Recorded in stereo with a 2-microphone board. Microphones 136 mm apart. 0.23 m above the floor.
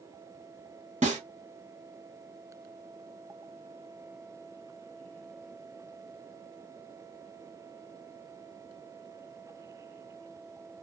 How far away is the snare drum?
About 2.0 m.